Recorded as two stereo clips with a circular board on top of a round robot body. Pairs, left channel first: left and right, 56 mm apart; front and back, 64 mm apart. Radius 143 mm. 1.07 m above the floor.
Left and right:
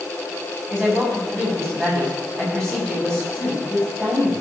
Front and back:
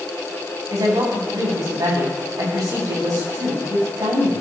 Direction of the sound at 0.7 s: 170° left.